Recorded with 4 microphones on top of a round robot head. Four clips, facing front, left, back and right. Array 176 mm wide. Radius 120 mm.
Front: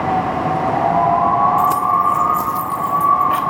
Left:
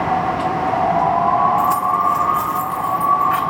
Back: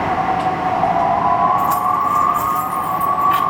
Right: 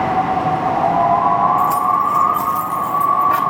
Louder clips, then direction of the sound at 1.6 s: Right 1 dB, front 1 dB; straight ahead.